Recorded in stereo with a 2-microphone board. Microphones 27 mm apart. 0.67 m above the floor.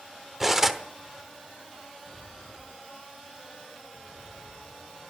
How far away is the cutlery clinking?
About 0.9 m.